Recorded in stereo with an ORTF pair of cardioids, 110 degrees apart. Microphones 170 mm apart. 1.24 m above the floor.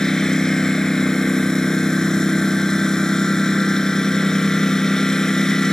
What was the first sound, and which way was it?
A lawn mower, 5° left.